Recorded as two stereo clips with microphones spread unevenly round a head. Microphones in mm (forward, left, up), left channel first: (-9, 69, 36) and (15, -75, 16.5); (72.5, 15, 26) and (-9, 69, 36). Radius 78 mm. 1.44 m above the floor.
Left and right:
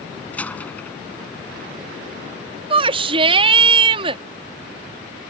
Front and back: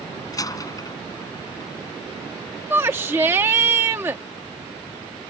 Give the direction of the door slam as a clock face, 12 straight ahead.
11 o'clock.